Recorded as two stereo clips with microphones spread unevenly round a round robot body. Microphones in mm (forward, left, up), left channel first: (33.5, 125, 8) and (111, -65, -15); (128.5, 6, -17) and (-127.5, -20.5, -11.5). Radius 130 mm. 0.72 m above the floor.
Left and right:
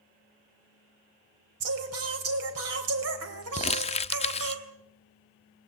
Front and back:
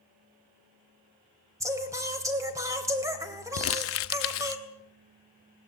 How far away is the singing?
About 2.5 m.